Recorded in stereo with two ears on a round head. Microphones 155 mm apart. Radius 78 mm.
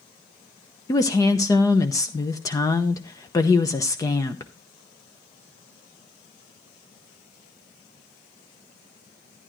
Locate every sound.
0.9 s a woman speaking: 20° left (ahead or behind), 0.7 m